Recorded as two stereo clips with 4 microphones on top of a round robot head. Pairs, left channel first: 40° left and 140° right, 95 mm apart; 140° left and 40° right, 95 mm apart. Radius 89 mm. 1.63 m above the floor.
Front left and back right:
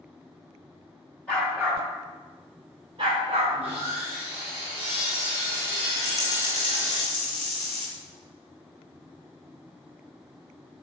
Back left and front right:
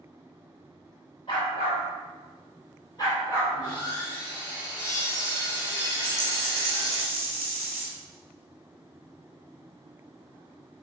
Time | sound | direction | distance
1.3 | a dog barking | 115° left | 1.3 m
3.5 | sawing | 170° right | 3 m
6.0 | a dropped coin | 80° left | 1.5 m